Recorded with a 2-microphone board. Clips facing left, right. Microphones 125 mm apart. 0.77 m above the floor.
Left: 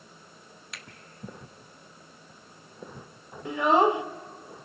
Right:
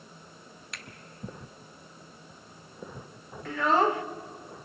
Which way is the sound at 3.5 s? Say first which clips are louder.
Left 3 dB; 15° left (ahead or behind).